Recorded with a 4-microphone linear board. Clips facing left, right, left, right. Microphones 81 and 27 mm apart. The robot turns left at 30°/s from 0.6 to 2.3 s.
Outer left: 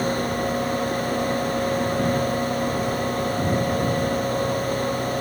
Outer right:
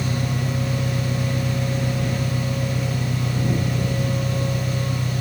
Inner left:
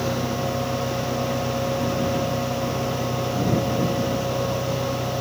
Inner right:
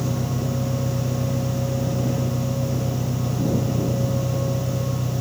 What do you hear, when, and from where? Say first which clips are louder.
0.0 s an engine running: outer left 3 dB, inner left 2 dB; 75° right; by 5.2 s 125° right